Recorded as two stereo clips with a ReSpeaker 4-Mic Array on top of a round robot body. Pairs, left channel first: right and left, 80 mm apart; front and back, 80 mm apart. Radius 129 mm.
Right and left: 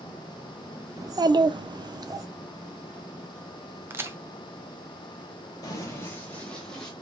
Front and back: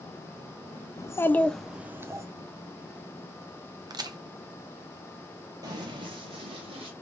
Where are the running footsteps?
135° right, 0.8 m; by 6.9 s 175° right, 1.3 m.